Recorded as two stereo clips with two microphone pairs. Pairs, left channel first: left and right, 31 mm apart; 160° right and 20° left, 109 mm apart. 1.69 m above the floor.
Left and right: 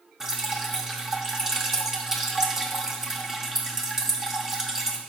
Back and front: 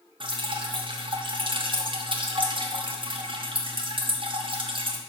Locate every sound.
0.2 s dripping: 15° right, 0.9 m